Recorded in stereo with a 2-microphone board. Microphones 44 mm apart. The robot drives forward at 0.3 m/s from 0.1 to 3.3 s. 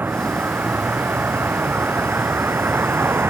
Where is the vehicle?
45° right (ahead or behind); by 3.3 s 55° right (ahead or behind).